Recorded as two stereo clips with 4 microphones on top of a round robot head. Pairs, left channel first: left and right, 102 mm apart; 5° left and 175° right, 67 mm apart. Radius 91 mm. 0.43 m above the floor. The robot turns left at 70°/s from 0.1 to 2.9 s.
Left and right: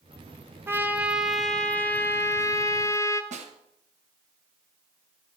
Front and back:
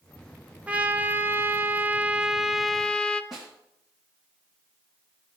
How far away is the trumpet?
About 1.0 m.